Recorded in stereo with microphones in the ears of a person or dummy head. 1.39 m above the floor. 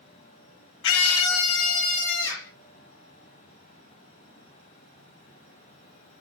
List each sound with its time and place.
0.8 s a scream: 60° left (ahead or behind), 0.5 m; by 2.5 s 65° left (ahead or behind), 3 m